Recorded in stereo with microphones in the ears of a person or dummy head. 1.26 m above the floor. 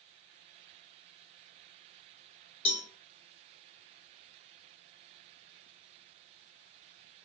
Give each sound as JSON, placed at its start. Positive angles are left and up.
{"t": 2.6, "sound": "a cowbell", "side_deg": 30, "distance_m": 0.8}